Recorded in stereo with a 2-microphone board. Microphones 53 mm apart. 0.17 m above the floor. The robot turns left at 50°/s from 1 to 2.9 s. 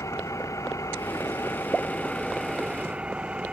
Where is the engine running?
75° left; by 3.5 s 20° right.